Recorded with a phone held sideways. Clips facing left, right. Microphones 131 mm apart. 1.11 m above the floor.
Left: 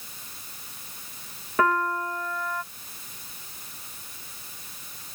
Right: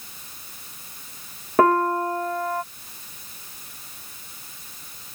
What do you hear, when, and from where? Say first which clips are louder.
1.6 s a piano: right 6 dB; 45° right (ahead or behind)